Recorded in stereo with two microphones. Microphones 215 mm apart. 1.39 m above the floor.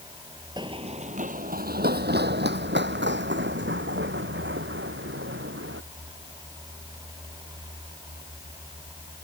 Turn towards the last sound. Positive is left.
turn(degrees=-60)  # may be behind; listen again after turning